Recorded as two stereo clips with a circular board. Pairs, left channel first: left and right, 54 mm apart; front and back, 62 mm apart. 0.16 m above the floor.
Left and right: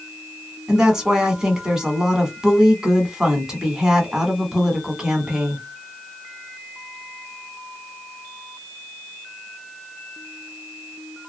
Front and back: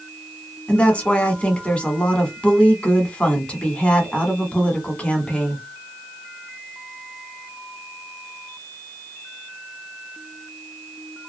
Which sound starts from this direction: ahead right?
A woman speaking, at 0.7 s.